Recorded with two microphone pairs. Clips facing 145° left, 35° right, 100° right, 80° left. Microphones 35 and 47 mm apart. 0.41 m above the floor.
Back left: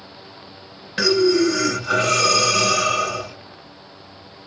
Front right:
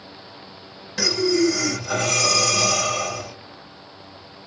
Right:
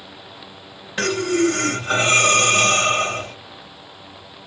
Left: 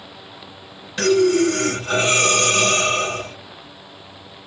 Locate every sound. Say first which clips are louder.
1.0 s breathing: back left 4 dB, left 4 dB; 160° right, 2.0 m